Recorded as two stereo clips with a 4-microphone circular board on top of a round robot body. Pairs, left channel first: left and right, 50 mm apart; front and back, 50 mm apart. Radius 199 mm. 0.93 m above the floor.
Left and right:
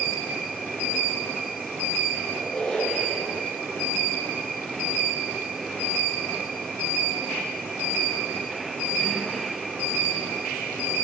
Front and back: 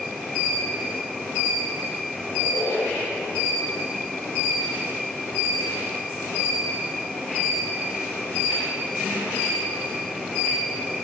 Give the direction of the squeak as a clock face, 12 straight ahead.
11 o'clock.